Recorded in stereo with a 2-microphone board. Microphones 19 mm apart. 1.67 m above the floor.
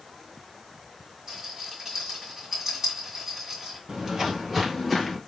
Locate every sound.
1.3 s a rattle: 25° right (ahead or behind), 1.8 m
3.9 s footsteps: 40° right (ahead or behind), 2 m; by 5.2 s 10° left (ahead or behind), 1.7 m